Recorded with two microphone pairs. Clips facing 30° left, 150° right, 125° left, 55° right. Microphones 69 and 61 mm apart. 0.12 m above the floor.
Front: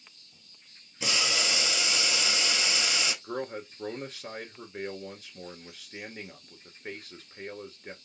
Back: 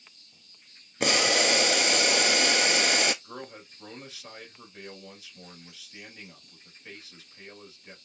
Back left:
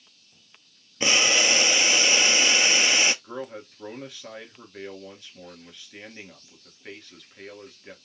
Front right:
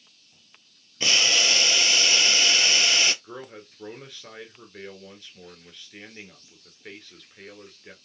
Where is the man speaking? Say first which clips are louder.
Front 7 dB, back left 4 dB; 40° left, 1.8 m.